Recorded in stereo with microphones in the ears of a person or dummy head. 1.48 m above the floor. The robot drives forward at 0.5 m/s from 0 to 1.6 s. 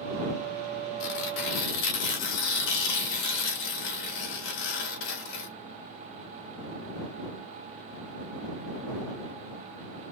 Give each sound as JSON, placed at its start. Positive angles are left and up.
{"t": 1.0, "sound": "tearing paper", "side_deg": 60, "distance_m": 1.4}